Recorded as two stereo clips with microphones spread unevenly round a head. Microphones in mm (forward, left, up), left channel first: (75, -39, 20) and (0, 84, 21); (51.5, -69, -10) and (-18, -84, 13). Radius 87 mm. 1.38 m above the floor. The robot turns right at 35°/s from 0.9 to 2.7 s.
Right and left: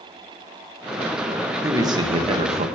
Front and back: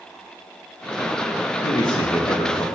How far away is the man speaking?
About 1.5 m.